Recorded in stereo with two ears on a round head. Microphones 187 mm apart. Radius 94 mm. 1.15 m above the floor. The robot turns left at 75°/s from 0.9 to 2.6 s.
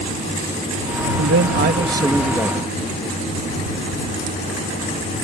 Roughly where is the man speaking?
Right.